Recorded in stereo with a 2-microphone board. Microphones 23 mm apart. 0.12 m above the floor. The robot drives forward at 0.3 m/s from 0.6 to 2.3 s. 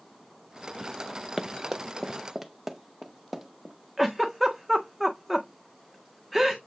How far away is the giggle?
About 1.9 m.